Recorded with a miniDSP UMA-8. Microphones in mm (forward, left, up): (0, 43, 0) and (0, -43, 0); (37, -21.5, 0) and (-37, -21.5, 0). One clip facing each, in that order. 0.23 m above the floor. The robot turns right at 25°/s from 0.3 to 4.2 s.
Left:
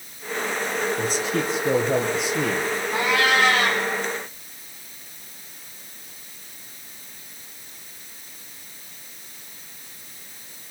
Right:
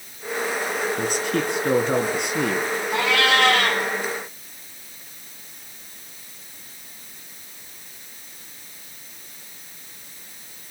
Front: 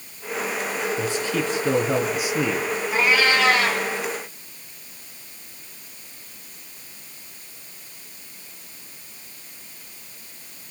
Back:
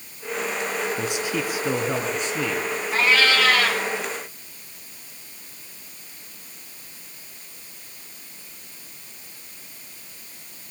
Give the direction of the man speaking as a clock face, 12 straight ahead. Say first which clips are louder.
Right 1 dB, front 2 dB; 4 o'clock.